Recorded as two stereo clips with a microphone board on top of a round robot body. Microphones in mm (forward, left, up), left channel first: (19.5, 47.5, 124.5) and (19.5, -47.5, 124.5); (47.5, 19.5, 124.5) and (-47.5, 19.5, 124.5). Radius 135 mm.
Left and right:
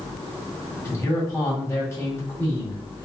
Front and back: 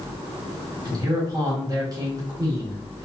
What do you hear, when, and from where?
0.8 s a man speaking: 145° left, 1.5 m